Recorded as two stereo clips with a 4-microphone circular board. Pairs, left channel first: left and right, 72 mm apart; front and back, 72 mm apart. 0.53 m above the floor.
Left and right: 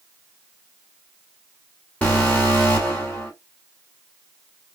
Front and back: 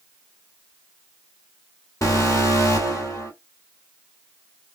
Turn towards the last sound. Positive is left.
turn(degrees=25)